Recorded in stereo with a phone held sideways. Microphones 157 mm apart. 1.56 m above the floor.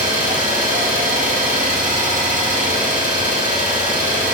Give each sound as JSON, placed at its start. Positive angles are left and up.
{"t": 0.0, "sound": "an engine running", "side_deg": -55, "distance_m": 4.5}